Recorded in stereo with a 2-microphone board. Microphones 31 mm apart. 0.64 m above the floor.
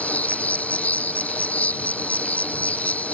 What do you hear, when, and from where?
0.0 s an insect: 55° left (ahead or behind)